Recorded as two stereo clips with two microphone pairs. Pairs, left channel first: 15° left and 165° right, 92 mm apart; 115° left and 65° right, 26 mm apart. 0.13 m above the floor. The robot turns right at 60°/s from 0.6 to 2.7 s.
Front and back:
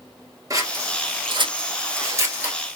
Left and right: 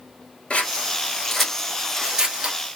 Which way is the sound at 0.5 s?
150° left.